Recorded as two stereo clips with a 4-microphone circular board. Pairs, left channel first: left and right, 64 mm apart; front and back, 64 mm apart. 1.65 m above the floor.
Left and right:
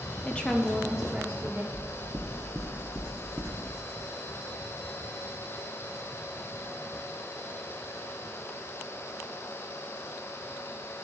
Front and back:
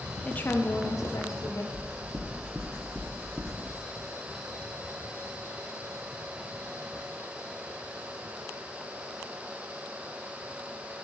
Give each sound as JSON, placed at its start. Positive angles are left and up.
{"t": 0.2, "sound": "a woman speaking", "azimuth_deg": 50, "distance_m": 0.5}
{"t": 1.7, "sound": "knocking", "azimuth_deg": -105, "distance_m": 0.8}